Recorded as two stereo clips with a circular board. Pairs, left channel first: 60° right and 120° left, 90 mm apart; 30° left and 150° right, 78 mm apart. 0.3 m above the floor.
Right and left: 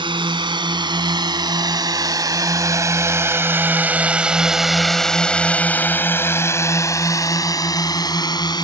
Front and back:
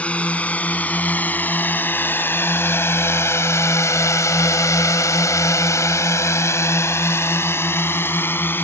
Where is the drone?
105° left; by 8.6 s 30° right.